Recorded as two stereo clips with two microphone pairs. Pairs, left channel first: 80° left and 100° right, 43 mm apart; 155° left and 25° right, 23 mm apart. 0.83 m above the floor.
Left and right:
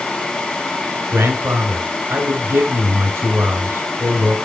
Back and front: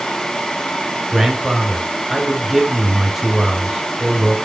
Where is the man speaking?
105° right, 3 m.